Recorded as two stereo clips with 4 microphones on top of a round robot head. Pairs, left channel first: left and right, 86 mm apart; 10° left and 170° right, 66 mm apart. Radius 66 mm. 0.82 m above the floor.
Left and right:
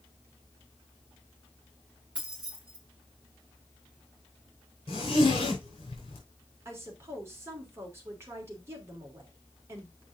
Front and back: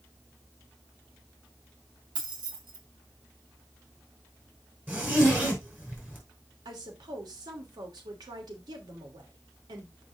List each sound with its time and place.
2.1 s keys jangling: 170° right, 4 m
4.9 s a zipper: 125° left, 5 m
6.7 s a woman speaking: 155° right, 3 m